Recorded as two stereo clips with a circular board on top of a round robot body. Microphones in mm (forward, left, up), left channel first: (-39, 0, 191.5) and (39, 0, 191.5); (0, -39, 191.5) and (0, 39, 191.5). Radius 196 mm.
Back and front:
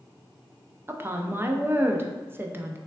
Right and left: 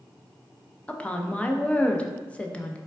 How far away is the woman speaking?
About 0.6 m.